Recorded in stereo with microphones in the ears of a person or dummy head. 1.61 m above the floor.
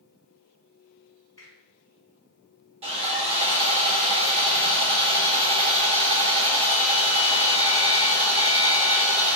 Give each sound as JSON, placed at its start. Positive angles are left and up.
{"t": 1.4, "sound": "a finger snap", "side_deg": 20, "distance_m": 1.8}
{"t": 2.8, "sound": "sawing", "side_deg": -40, "distance_m": 1.3}